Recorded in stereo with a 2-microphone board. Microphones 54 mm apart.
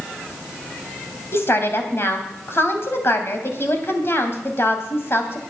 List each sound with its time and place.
1.3 s a woman speaking: 50° left (ahead or behind), 2.5 m